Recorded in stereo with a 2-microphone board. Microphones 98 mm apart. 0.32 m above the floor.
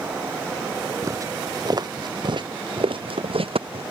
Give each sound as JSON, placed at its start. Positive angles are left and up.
{"t": 1.0, "sound": "footsteps", "side_deg": -35}